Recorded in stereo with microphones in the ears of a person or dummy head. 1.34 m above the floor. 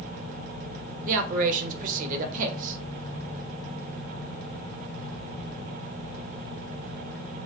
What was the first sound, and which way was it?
A man speaking, 50° right (ahead or behind).